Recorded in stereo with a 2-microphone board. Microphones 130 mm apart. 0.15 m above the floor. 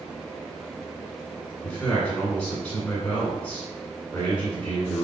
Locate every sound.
1.6 s a man speaking: 10° left (ahead or behind), 1.5 m